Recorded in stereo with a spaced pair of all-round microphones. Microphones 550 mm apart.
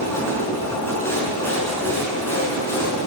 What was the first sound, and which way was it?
A machine running, 5° left (ahead or behind).